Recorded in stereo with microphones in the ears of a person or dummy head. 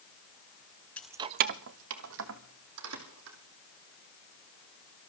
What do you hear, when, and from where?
1.0 s keys jangling: 10° left (ahead or behind), 0.5 m; by 3.4 s 75° right (ahead or behind), 3 m